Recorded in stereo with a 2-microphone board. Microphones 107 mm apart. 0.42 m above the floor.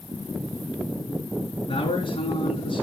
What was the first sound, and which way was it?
A man speaking, 50° left (ahead or behind).